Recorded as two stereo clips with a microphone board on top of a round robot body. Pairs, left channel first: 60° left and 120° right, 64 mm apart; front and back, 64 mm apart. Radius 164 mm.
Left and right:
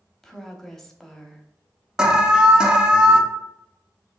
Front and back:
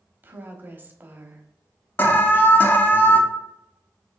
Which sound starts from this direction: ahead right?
An alarm, at 2.0 s.